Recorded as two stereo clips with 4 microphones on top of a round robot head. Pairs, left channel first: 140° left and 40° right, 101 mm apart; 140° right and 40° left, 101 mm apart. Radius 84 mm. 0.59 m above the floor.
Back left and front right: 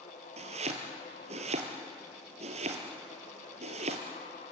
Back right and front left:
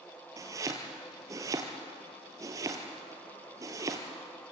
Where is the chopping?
20° right, 2.5 m.